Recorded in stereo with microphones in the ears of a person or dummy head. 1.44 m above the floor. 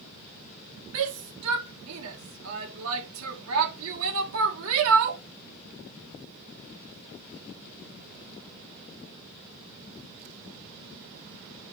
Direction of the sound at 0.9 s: 75° right (ahead or behind).